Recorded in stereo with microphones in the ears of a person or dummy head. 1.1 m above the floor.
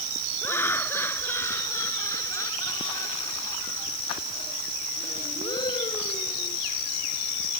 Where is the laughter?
20° left (ahead or behind); by 6.6 s 30° left (ahead or behind).